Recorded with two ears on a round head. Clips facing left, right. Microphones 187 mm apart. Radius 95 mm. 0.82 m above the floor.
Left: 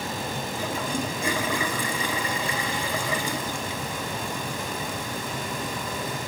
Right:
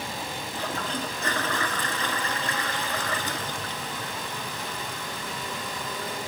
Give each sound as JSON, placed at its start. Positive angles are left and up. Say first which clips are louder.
{"t": 0.5, "sound": "a toilet flushing", "louder": "left 2 dB", "side_deg": 10}